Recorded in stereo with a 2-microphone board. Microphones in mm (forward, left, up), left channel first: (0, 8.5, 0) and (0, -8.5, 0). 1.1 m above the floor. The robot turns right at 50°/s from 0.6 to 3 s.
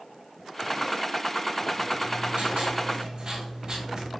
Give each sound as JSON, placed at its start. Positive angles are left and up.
{"t": 1.9, "sound": "writing", "azimuth_deg": -100, "distance_m": 3.5}